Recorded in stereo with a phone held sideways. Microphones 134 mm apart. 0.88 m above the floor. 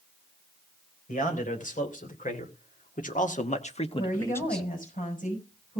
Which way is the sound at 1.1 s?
75° left (ahead or behind).